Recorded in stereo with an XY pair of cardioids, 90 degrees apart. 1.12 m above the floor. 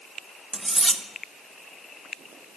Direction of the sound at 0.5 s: 10° right.